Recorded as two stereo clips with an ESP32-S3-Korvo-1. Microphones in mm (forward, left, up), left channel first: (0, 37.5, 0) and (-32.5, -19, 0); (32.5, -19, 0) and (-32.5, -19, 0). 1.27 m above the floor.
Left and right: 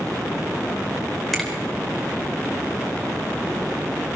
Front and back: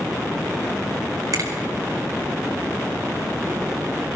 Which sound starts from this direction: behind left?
A finger snap, at 1.3 s.